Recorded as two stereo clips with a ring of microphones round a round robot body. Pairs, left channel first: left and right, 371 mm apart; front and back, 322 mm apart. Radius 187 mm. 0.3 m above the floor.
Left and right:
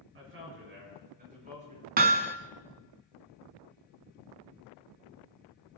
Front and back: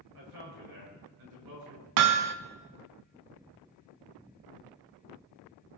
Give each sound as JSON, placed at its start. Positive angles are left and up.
{"t": 0.1, "sound": "a man speaking", "azimuth_deg": -145, "distance_m": 7.0}
{"t": 2.0, "sound": "hammering", "azimuth_deg": -160, "distance_m": 0.6}